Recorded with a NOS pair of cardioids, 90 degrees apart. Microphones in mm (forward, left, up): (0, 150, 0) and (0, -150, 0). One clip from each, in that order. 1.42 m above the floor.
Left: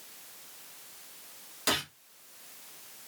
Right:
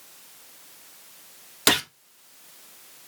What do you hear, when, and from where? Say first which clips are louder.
1.7 s a gunshot: right 9 dB; 55° right, 0.8 m